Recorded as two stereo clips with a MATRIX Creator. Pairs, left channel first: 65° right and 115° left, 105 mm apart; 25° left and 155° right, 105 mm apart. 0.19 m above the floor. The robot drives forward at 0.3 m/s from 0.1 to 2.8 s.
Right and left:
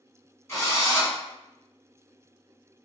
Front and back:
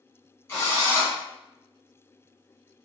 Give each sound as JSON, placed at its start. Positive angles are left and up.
{"t": 0.5, "sound": "a drill", "azimuth_deg": -20, "distance_m": 1.5}